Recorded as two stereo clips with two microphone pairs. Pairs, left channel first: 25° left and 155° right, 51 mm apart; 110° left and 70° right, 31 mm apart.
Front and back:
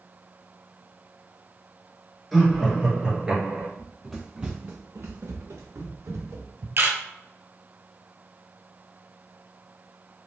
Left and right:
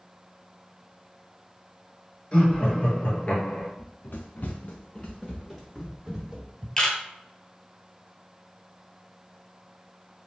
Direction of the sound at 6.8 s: Straight behind.